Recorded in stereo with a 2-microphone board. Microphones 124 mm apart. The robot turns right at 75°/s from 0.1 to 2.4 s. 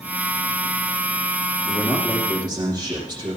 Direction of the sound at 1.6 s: 150° left.